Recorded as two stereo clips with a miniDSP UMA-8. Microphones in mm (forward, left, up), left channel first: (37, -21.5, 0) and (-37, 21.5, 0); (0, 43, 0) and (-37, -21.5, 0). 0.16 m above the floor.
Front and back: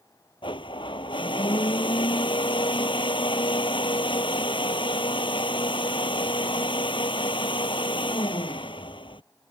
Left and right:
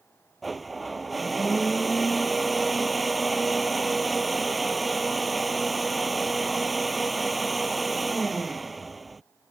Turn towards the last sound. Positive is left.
turn(degrees=-30)